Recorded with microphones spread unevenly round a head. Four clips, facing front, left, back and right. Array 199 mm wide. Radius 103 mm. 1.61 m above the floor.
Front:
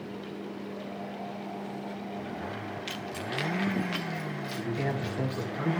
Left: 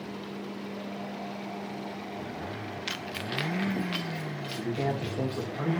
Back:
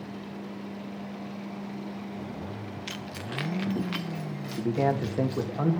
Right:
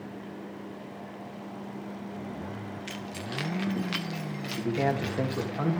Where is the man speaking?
165° right, 2.5 m.